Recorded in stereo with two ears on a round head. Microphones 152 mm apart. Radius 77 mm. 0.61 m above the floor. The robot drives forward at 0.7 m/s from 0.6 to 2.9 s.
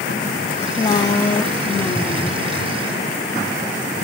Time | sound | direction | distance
0.6 | a woman speaking | 25° left (ahead or behind) | 0.8 m